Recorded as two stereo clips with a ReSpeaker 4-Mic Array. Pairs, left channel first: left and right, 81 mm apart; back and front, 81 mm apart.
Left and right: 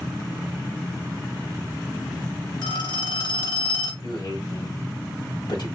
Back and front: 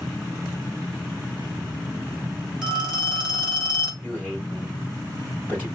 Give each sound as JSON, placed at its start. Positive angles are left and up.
{"t": 2.6, "sound": "a phone ringing", "azimuth_deg": 80, "distance_m": 3.0}
{"t": 4.0, "sound": "a man speaking", "azimuth_deg": 70, "distance_m": 3.5}